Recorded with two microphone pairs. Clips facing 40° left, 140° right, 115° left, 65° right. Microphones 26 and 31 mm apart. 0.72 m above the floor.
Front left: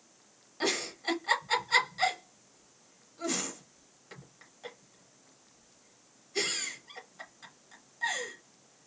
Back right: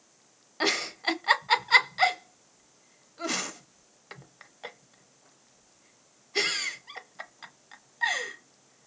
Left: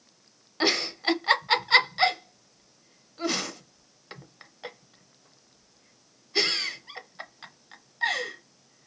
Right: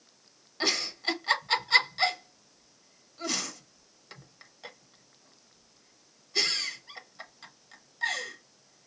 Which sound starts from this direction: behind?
A giggle, at 0.6 s.